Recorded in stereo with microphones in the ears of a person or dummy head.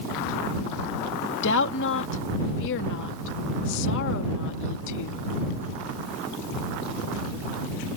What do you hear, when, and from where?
1.4 s a woman speaking: 60° left (ahead or behind)